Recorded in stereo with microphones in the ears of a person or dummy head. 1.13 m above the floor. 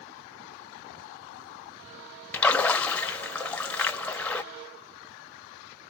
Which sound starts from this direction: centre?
A splash, at 2.3 s.